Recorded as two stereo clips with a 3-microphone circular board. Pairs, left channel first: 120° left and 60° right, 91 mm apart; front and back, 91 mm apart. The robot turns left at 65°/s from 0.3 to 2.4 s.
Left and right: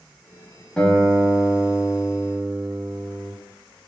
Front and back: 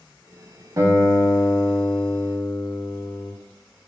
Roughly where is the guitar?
Behind.